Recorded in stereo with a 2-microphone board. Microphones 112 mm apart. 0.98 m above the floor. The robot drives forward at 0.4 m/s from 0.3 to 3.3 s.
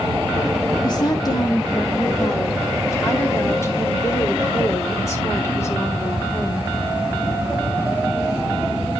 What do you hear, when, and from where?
0.8 s a woman speaking: 40° left (ahead or behind), 2.0 m; by 6.7 s 25° left (ahead or behind), 3 m